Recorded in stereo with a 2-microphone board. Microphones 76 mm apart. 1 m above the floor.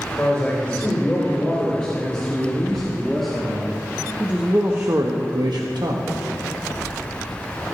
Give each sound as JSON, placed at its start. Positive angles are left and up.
{"t": 0.2, "sound": "a man speaking", "side_deg": 20, "distance_m": 4.5}